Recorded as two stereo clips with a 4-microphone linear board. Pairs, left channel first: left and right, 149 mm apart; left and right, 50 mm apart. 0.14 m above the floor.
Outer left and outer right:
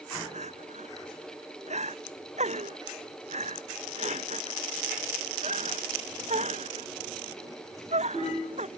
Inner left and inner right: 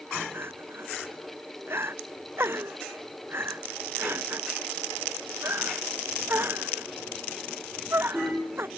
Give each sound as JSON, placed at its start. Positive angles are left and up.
{"t": 0.3, "sound": "crying", "side_deg": -50}